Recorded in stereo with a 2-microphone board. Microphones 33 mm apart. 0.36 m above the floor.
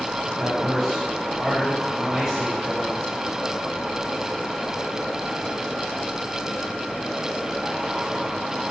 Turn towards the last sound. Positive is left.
turn(degrees=-20)  # may be behind; listen again after turning